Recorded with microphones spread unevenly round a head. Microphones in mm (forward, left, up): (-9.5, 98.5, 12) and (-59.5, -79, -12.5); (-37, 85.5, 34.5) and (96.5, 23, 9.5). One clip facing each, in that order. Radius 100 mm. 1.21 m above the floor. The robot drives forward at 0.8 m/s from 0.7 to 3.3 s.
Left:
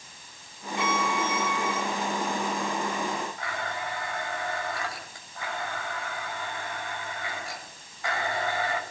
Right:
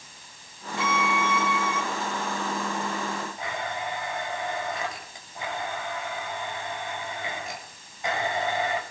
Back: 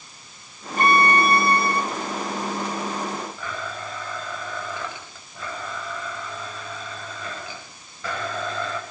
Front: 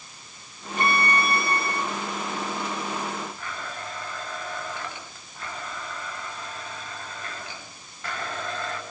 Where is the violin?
110° left, 2 m; by 1.8 s 130° left, 2.5 m.